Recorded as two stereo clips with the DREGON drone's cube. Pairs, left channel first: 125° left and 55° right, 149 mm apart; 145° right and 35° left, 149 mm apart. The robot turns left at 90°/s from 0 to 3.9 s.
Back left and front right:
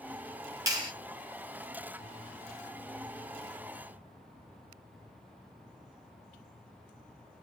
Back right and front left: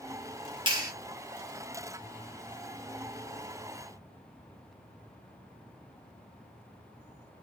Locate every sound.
0.7 s a clap: straight ahead, 1.1 m; by 0.9 s 25° right, 1.1 m